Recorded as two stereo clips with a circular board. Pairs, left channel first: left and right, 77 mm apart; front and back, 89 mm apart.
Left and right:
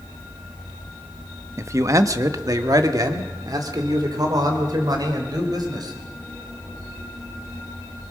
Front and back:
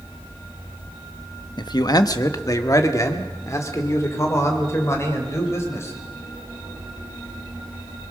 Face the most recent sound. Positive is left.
turn(degrees=-60)